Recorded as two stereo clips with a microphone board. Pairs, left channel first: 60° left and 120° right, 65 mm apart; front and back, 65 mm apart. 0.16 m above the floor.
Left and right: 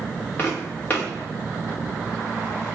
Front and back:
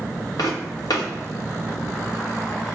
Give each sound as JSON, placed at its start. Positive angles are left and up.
{"t": 0.4, "sound": "footsteps", "azimuth_deg": 0, "distance_m": 1.5}